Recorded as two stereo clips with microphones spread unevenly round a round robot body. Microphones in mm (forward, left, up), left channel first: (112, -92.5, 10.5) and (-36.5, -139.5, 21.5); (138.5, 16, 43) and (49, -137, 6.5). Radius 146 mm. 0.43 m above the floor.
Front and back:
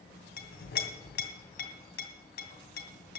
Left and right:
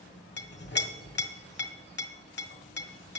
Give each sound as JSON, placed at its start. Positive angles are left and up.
{"t": 0.4, "sound": "a clink", "azimuth_deg": 35, "distance_m": 2.0}